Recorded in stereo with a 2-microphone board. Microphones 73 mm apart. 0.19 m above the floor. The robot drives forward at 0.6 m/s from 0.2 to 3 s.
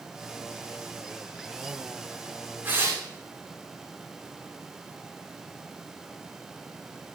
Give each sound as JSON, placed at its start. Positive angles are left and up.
{"t": 2.6, "sound": "tearing paper", "side_deg": -30, "distance_m": 6.5}